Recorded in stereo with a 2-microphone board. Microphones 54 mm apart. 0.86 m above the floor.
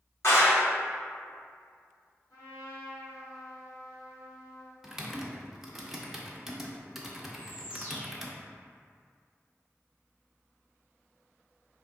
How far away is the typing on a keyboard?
About 0.6 m.